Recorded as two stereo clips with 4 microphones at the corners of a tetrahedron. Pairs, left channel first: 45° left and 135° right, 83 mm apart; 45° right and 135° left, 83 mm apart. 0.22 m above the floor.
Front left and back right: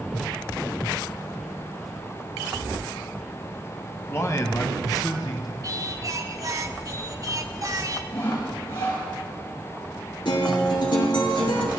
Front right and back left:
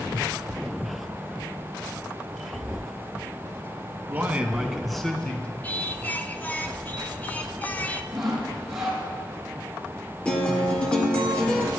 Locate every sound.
4.1 s a man speaking: 85° left, 1.6 m; by 5.5 s 25° left, 2 m
5.6 s singing: 110° right, 0.9 m
8.1 s sawing: 50° left, 5.5 m
10.2 s a guitar: 30° left, 3 m